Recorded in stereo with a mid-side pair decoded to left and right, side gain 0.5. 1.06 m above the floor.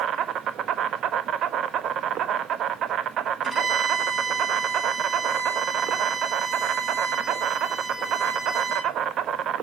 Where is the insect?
60° right, 1.2 m.